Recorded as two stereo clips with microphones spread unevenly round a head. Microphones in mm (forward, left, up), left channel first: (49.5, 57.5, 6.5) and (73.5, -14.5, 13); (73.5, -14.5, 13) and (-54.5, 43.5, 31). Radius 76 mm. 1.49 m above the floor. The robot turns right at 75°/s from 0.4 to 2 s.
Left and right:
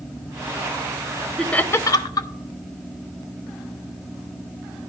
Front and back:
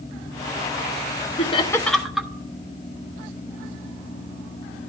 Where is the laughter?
25° left, 0.8 m; by 2.3 s 70° left, 0.8 m.